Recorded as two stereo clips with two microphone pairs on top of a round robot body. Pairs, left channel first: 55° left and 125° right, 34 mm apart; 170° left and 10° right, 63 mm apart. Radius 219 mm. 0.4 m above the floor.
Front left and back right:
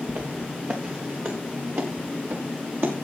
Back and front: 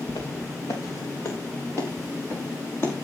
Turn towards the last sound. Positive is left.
turn(degrees=-135)